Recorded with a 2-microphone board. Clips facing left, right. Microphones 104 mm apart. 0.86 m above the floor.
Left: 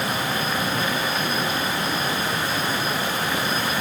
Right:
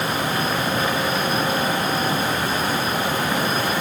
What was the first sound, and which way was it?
Only background noise.